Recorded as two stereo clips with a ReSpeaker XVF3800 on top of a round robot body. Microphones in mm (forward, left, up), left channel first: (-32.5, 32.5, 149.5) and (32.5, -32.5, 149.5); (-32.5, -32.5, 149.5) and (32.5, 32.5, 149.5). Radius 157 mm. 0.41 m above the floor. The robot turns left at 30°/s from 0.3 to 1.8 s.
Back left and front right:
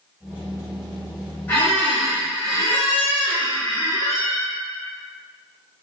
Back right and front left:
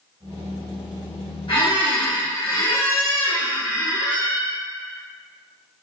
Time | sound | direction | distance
1.5 | a squeak | 155° right | 1.6 m